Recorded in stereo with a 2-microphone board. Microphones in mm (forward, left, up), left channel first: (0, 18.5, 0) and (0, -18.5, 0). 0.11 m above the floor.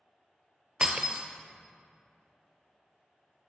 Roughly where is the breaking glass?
Right.